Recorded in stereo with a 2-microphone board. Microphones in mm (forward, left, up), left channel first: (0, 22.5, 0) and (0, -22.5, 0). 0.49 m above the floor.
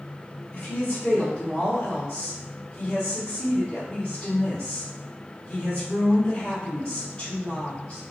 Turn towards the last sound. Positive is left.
turn(degrees=25)  # may be behind; listen again after turning